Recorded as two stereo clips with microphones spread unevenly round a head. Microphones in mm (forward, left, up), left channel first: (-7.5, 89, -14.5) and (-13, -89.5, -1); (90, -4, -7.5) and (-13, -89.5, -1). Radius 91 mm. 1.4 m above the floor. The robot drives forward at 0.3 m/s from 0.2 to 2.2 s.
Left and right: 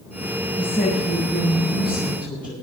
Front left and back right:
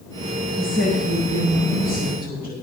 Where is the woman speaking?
170° left, 6.5 m; by 2.5 s 175° left, 7 m.